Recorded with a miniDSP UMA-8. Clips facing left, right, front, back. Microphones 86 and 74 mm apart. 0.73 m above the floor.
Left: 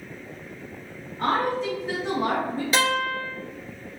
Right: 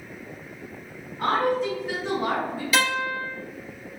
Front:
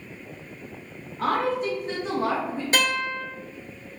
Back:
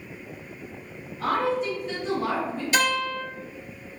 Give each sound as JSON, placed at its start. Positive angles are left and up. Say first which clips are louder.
{"t": 1.2, "sound": "a woman speaking", "louder": "right 1 dB, even", "azimuth_deg": 10, "distance_m": 1.2}
{"t": 2.7, "sound": "a guitar", "louder": "even, back 1 dB", "azimuth_deg": 40, "distance_m": 2.0}